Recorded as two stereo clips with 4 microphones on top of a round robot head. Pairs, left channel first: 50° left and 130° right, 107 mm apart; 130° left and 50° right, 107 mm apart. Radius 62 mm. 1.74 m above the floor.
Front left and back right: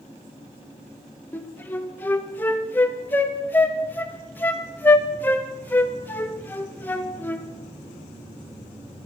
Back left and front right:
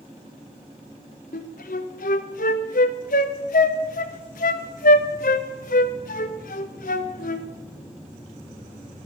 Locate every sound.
1.3 s a flute: 125° left, 0.9 m